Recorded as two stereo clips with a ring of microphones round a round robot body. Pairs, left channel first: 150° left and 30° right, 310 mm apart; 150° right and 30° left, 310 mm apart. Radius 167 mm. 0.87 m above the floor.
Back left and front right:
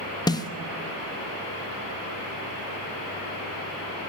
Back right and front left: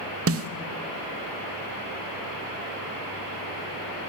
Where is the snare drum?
75° left, 1.0 m.